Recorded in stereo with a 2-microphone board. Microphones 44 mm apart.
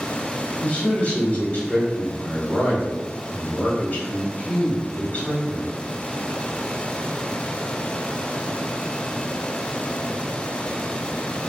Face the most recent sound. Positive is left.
turn(degrees=40)  # may be behind; listen again after turning